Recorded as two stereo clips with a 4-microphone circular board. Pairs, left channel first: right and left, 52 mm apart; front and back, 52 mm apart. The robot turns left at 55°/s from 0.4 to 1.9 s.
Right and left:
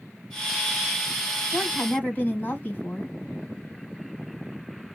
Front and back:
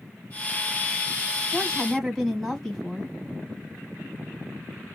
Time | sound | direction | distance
1.5 | a woman speaking | 55° right | 1.5 m